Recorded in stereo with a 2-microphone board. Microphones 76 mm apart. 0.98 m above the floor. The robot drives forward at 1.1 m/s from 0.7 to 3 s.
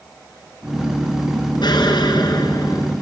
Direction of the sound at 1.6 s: 75° left (ahead or behind).